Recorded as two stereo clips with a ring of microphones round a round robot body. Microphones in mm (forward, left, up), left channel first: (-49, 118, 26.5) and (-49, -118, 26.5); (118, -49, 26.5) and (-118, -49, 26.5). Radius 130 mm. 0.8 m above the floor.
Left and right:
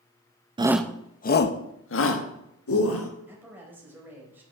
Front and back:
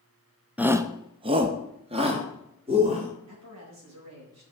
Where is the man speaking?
170° right, 4 m.